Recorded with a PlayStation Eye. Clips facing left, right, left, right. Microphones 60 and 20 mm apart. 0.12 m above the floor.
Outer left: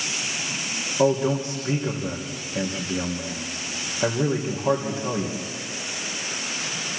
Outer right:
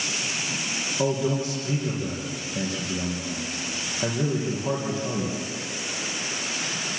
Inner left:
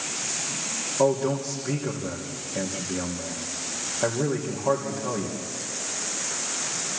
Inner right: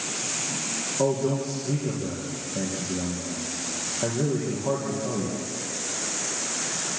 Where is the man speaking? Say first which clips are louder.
Outer left 4 dB, inner left 2 dB; 20° left (ahead or behind), 4 m.